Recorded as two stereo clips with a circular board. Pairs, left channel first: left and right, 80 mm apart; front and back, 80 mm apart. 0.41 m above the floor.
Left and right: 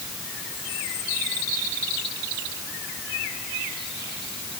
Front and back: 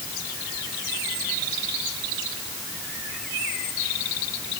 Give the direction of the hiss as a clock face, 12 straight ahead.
No hiss in this recording.